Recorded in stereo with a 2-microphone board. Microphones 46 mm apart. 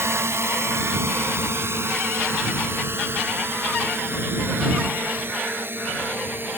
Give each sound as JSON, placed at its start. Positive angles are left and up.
{"t": 0.0, "sound": "a drone", "side_deg": -65}